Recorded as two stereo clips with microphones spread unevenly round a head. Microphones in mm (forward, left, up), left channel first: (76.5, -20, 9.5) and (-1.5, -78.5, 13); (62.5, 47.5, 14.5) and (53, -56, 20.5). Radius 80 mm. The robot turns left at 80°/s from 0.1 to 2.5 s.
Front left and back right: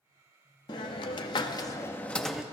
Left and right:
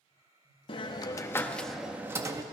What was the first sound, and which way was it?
A hiss, 75° left.